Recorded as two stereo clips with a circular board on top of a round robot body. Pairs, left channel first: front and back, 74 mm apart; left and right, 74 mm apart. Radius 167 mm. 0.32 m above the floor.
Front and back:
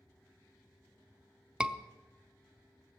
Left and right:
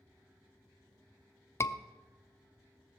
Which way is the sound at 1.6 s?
110° left.